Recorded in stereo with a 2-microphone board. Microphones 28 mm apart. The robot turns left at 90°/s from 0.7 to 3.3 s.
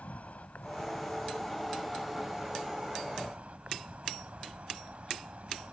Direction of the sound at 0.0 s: 110° left.